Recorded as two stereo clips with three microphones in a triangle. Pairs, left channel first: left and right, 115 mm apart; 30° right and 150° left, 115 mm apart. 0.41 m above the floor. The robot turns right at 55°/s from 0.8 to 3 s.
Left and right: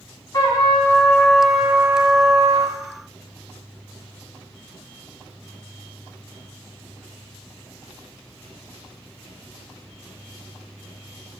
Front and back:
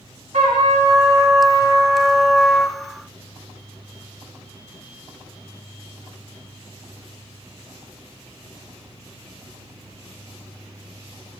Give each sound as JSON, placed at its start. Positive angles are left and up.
{"t": 0.3, "sound": "a trumpet", "azimuth_deg": 145, "distance_m": 0.9}